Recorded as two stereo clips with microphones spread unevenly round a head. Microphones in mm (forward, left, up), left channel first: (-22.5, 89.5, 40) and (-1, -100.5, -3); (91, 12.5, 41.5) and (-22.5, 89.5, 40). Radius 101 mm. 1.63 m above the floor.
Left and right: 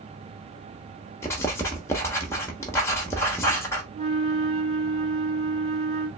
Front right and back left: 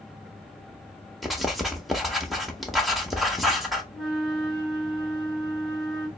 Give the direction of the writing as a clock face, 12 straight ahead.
10 o'clock.